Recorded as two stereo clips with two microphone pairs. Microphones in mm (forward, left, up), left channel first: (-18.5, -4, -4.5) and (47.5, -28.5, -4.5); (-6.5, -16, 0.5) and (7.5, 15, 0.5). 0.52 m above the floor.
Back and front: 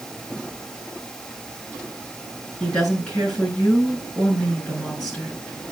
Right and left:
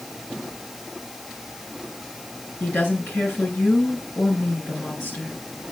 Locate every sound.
2.6 s a woman speaking: 120° right, 6.5 m